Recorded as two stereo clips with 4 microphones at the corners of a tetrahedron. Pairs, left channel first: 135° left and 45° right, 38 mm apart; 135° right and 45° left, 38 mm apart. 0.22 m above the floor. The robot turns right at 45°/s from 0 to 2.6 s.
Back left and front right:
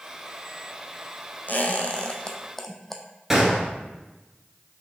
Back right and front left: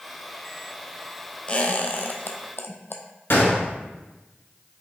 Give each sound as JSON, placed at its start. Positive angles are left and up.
{"t": 1.5, "sound": "a squeak", "azimuth_deg": 165, "distance_m": 0.5}
{"t": 3.3, "sound": "a gunshot", "azimuth_deg": -125, "distance_m": 1.1}